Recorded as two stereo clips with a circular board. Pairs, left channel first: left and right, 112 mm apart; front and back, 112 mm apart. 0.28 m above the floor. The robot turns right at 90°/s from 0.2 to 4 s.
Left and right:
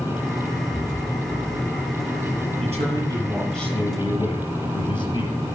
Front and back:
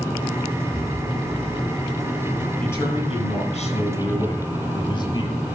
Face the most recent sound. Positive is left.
turn(degrees=50)